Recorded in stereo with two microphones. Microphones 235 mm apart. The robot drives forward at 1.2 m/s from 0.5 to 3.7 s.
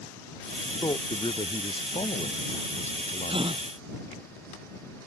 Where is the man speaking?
20° left (ahead or behind); by 3.7 s 35° left (ahead or behind).